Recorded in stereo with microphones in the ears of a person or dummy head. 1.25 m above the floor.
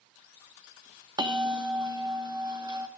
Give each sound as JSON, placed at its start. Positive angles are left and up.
{"t": 1.2, "sound": "a bell", "side_deg": -15, "distance_m": 2.0}